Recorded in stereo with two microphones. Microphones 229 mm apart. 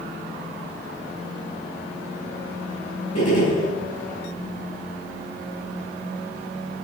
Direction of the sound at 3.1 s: 80° left.